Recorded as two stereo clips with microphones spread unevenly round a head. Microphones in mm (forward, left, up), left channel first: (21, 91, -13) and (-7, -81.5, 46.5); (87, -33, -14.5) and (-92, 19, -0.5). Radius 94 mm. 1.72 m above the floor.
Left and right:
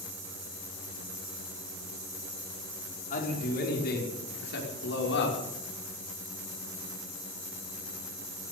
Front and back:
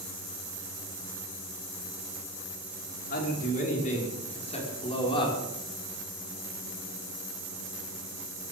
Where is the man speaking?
30° left, 5 m; by 5.4 s 50° left, 6 m.